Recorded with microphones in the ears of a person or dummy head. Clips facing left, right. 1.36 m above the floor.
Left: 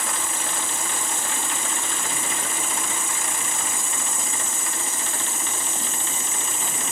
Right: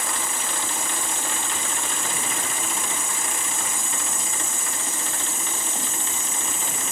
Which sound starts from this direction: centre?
An insect, at 0.0 s.